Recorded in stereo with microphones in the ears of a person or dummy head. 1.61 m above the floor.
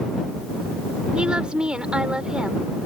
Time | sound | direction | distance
1.1 | a woman speaking | 10° right (ahead or behind) | ?